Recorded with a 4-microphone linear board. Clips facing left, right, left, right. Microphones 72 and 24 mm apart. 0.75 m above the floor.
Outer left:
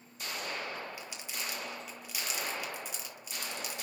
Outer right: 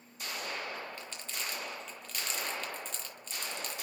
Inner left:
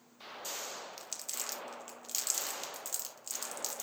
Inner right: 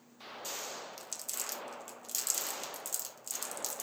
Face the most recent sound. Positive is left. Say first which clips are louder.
# even, even
turn(degrees=10)  # may be behind; listen again after turning